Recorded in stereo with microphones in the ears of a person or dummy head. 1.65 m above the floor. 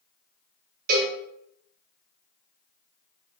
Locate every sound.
0.9 s a cowbell: 45° right (ahead or behind), 0.7 m